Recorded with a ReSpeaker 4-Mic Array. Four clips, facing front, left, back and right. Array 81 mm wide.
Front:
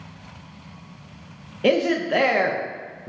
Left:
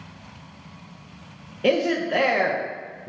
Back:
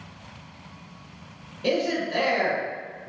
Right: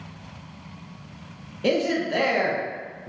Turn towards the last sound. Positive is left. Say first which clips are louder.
# left 2 dB, front 5 dB
turn(degrees=20)